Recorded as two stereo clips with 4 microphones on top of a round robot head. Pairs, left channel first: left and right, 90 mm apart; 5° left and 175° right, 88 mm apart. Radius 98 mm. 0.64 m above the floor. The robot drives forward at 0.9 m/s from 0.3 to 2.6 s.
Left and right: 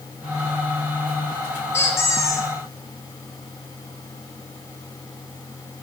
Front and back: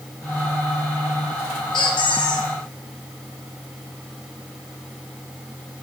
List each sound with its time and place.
1.7 s a squeak: 30° left, 2.5 m; by 2.5 s 40° left, 1.8 m